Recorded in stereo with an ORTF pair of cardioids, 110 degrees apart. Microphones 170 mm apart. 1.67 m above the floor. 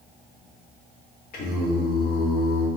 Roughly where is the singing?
Ahead left.